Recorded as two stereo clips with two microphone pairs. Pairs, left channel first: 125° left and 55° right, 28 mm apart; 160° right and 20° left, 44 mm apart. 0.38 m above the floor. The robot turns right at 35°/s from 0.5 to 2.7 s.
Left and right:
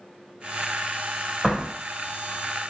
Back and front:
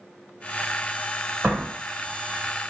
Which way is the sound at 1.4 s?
15° left.